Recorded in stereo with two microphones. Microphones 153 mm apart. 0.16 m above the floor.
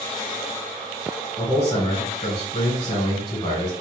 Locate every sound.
1.4 s a man speaking: 30° left (ahead or behind), 1.1 m